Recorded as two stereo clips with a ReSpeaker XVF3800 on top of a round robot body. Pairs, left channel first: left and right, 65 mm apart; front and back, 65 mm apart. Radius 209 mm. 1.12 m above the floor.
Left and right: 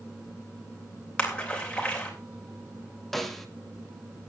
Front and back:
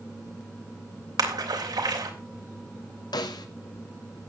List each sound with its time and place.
1.2 s a splash: 165° left, 3 m
3.1 s a snare drum: straight ahead, 1.9 m